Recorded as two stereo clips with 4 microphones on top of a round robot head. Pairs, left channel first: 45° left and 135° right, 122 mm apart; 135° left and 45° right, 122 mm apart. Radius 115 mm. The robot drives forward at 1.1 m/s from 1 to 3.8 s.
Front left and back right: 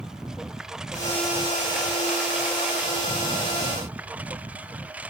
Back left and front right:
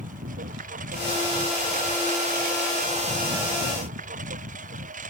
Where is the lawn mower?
50° right; by 5.1 s 55° right.